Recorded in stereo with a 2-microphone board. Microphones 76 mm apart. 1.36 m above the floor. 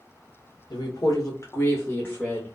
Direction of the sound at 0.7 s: 65° left (ahead or behind).